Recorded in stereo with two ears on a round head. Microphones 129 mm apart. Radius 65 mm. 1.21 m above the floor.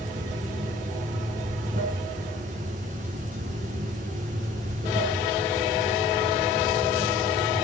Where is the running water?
55° right (ahead or behind), 5 m.